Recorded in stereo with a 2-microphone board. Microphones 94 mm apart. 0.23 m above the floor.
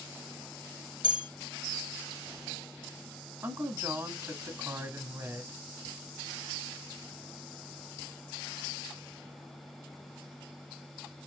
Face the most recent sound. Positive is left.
turn(degrees=-30)  # may be behind; listen again after turning